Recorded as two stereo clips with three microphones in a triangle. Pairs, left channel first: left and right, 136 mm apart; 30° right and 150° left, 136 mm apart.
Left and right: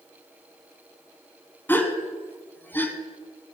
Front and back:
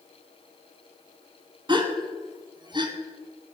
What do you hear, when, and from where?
1.7 s a gasp: 155° left, 1.4 m